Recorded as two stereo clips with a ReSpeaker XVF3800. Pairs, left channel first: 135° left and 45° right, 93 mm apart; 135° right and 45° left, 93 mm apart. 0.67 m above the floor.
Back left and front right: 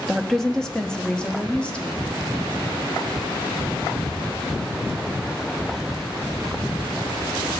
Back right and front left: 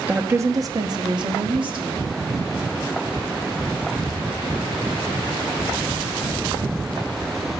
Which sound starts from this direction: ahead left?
A woman speaking, at 0.1 s.